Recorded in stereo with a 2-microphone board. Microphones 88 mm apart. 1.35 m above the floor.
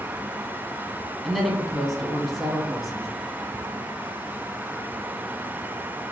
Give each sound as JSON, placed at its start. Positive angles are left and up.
{"t": 1.2, "sound": "a woman speaking", "side_deg": 0, "distance_m": 0.8}